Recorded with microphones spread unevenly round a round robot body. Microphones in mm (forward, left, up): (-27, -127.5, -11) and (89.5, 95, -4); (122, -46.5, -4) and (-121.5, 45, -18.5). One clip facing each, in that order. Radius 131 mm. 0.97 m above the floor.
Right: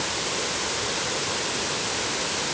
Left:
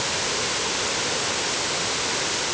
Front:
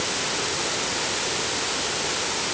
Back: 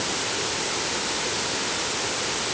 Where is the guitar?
No guitar in this recording.